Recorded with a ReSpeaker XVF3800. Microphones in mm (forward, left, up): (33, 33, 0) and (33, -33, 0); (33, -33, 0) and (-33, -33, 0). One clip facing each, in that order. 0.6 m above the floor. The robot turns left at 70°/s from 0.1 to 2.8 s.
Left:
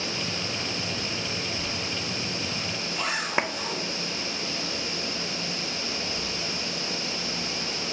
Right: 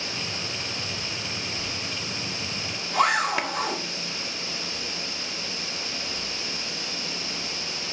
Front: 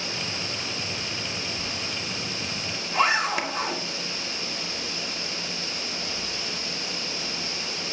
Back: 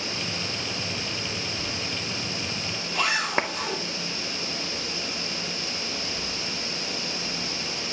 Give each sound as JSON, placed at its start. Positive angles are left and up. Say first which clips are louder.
{"t": 1.6, "sound": "a zipper", "louder": "left 2 dB, back 1 dB", "azimuth_deg": 20, "distance_m": 6.5}
{"t": 3.4, "sound": "a clap", "louder": "left 3 dB, back 4 dB", "azimuth_deg": 145, "distance_m": 1.2}